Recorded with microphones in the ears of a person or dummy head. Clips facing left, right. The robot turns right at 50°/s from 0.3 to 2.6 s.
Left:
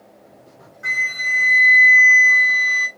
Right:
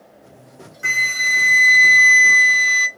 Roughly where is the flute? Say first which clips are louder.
Right 2 dB; behind right.